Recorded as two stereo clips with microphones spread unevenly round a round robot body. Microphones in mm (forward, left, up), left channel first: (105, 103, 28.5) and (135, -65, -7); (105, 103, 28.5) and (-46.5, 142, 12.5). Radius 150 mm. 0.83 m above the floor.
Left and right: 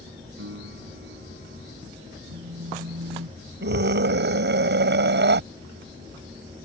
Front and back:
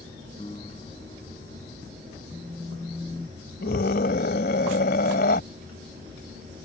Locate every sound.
0.4 s a piano: 90° right
2.3 s a phone buzzing: 105° right
3.6 s a scream: 70° right